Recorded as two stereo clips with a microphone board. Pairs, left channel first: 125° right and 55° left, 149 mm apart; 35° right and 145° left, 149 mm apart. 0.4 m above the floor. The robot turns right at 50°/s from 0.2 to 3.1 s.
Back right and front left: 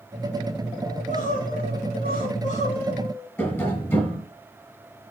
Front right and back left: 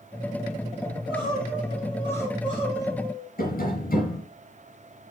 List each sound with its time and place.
0.9 s crying: 170° right, 4.5 m; by 3.3 s 60° right, 4.5 m
3.4 s tapping: 50° right, 5.5 m